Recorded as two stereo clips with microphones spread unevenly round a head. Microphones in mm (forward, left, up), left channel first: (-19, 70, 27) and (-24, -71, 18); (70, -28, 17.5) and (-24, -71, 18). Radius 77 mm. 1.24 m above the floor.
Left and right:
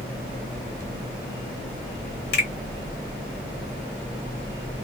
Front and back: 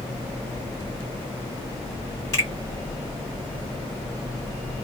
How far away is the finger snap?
About 1.4 m.